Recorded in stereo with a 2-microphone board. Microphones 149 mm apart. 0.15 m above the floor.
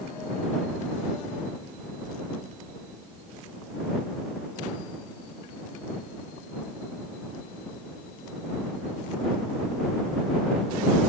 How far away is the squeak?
I don't hear a squeak.